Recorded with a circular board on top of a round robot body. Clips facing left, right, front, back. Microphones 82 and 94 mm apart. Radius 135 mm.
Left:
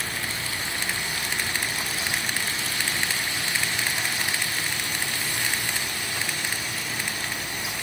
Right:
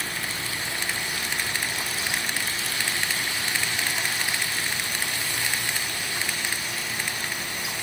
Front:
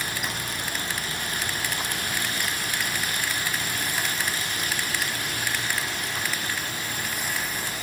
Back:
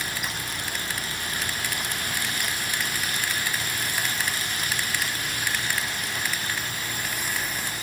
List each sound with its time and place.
Only background noise.